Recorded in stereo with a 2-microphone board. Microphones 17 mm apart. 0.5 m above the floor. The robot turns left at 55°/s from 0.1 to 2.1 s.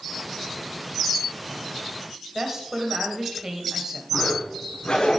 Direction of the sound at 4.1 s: 60° left (ahead or behind).